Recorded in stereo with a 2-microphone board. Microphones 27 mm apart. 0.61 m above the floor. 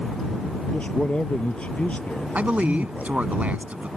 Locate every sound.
0.7 s a man speaking: 50° left (ahead or behind)
2.4 s a man speaking: 70° right (ahead or behind)